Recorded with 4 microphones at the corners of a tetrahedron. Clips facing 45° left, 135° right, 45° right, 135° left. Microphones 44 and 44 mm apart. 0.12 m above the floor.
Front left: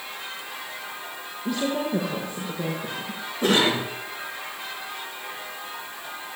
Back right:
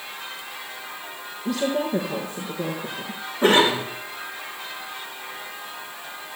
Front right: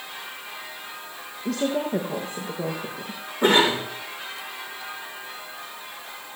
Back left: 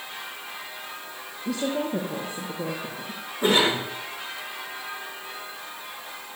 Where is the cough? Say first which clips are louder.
Back right 3 dB, front right 2 dB; 75° right, 7.5 m.